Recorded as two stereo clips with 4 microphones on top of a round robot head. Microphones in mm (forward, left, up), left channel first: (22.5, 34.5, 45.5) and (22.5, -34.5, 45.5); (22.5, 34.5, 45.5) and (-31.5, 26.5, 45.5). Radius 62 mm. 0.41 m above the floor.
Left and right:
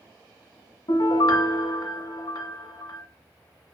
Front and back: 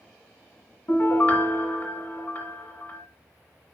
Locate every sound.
0.9 s a piano: 60° left, 1.4 m